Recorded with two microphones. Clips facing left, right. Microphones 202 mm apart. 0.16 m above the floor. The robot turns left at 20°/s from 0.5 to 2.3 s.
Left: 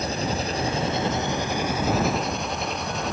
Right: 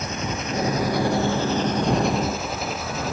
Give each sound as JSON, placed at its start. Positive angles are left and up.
{"t": 0.0, "sound": "an engine running", "azimuth_deg": 35}